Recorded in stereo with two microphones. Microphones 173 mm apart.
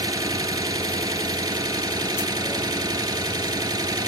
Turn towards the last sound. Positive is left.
turn(degrees=-25)  # may be behind; listen again after turning